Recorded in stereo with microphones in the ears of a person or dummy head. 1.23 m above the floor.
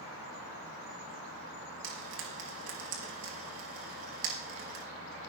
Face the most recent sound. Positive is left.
turn(degrees=-75)  # may be behind; listen again after turning